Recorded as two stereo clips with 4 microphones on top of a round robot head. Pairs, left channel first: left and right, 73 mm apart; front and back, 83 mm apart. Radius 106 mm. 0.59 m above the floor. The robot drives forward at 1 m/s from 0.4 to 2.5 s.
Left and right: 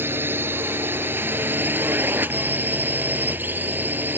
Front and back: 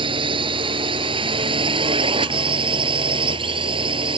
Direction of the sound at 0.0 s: 155° right.